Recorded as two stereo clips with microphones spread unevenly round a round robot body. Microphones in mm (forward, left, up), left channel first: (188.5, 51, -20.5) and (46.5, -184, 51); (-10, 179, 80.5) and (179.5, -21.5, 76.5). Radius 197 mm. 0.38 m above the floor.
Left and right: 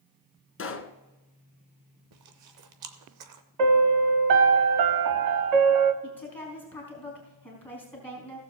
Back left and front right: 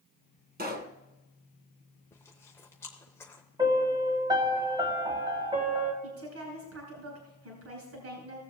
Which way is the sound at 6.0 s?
20° right.